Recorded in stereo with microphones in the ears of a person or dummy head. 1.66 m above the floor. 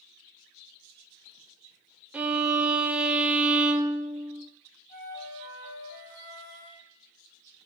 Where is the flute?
60° right (ahead or behind), 4 m.